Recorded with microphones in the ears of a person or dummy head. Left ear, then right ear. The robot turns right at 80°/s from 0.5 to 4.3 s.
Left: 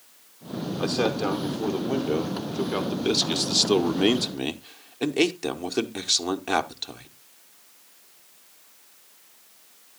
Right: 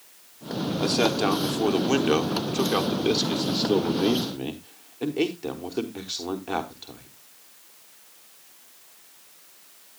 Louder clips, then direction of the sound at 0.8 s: Right 2 dB; 170° right.